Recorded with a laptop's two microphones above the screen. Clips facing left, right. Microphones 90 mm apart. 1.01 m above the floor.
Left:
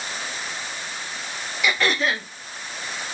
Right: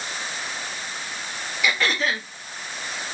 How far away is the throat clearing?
About 1.2 m.